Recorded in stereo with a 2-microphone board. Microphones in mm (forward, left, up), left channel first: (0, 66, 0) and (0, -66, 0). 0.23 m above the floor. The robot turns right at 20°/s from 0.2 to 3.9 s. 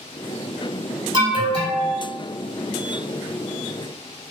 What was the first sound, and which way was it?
An alarm, 35° right (ahead or behind).